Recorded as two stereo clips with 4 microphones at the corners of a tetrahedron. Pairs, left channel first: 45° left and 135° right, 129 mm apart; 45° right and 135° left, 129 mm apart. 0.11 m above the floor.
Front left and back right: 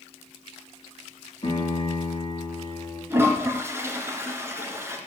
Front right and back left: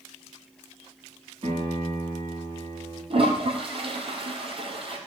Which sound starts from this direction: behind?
A toilet flushing, at 3.1 s.